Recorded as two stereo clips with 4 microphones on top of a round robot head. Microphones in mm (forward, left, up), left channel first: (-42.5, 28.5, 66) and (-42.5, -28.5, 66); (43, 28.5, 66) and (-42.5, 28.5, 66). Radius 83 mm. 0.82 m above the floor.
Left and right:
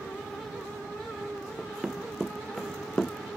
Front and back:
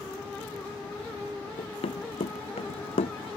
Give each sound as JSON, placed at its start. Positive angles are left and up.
{"t": 1.6, "sound": "running footsteps", "azimuth_deg": -5}